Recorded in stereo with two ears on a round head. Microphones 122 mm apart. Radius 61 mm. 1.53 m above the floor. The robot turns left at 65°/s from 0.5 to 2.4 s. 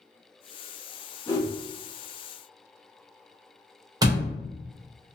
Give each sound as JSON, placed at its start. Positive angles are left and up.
{"t": 1.3, "sound": "a whoosh", "side_deg": 20, "distance_m": 0.7}
{"t": 4.0, "sound": "a door slam", "side_deg": -25, "distance_m": 0.8}